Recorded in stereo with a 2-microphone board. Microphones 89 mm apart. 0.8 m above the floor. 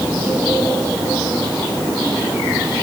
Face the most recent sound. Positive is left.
No sound to turn to.